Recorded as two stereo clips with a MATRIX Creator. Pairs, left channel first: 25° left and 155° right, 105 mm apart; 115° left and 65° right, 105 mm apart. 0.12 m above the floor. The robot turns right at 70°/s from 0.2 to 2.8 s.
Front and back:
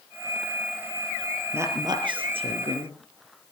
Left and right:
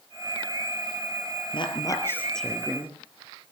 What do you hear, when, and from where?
1.5 s a woman speaking: 135° left, 3.5 m; by 2.9 s 135° right, 3.5 m